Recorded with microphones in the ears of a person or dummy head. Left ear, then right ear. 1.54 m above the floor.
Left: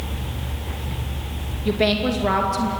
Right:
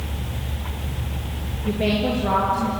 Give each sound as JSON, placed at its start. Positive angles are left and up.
{"t": 1.6, "sound": "a woman speaking", "side_deg": 50, "distance_m": 2.5}